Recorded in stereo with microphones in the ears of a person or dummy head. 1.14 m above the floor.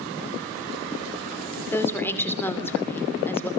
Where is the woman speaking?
15° left (ahead or behind), 2.5 m.